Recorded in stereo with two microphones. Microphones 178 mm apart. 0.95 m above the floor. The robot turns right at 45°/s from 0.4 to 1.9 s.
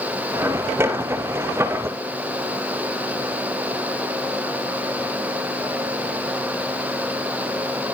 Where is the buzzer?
I don't hear a buzzer.